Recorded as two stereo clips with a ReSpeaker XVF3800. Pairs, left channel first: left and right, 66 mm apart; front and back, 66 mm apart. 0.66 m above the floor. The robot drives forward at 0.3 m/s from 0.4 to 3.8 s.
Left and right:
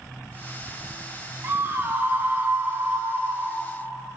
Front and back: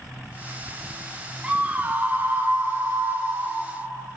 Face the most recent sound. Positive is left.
turn(degrees=-150)